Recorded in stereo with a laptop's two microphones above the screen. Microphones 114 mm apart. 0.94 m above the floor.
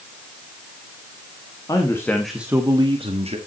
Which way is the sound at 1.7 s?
35° left (ahead or behind).